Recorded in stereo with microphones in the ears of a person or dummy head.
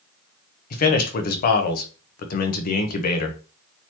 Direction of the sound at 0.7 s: 50° left (ahead or behind).